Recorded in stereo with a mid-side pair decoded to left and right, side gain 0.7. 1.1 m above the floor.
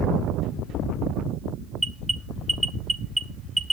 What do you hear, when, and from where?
1.8 s an alarm: 10° right, 1.1 m